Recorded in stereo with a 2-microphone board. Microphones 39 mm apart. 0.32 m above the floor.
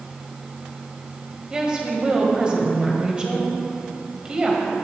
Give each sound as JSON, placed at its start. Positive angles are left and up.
{"t": 1.5, "sound": "a woman speaking", "side_deg": -20, "distance_m": 1.8}